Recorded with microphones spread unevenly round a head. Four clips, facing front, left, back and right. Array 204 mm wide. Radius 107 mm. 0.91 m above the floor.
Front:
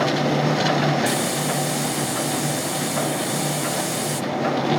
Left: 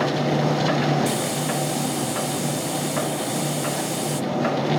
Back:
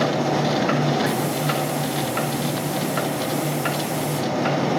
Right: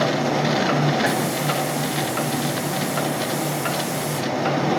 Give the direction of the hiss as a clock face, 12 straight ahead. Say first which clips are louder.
Right 2 dB, even; 10 o'clock.